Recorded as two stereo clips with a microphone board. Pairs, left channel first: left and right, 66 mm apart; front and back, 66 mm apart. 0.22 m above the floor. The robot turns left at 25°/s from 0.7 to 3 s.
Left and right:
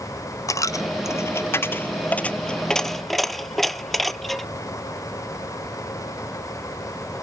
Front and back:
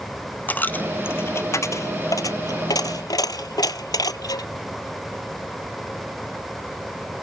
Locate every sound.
0.5 s a dropped coin: 60° left, 0.5 m; by 4.5 s 5° left, 0.5 m